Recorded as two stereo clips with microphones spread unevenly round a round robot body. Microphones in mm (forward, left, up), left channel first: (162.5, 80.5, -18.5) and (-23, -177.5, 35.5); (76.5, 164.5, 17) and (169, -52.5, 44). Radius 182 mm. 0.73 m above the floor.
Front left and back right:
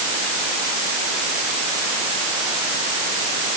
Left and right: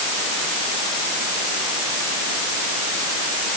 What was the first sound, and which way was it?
Only background noise.